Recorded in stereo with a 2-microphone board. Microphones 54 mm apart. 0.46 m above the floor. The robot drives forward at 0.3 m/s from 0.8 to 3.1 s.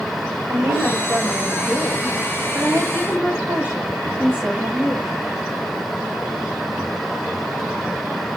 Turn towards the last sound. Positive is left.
turn(degrees=-35)  # may be behind; listen again after turning